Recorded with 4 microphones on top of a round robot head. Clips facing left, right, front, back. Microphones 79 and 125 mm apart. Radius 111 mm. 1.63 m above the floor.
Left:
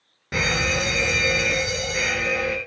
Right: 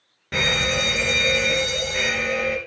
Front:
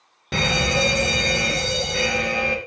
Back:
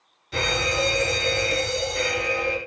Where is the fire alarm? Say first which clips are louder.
Even, front 3 dB; 10° left, 4 m.